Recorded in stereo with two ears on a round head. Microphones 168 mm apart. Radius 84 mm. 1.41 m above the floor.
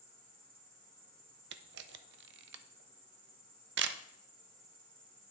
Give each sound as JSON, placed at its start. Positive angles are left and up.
{"t": 0.0, "sound": "an insect", "side_deg": -50, "distance_m": 2.5}
{"t": 1.5, "sound": "a camera shutter", "side_deg": -60, "distance_m": 0.5}